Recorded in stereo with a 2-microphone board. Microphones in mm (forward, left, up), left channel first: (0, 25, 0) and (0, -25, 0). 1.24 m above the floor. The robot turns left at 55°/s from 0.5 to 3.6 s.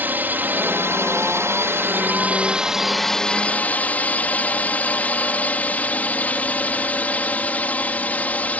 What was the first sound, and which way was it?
A drone, 45° right.